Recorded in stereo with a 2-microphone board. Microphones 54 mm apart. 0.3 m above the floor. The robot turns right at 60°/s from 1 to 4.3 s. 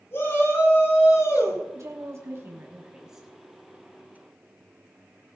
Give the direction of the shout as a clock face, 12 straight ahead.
10 o'clock.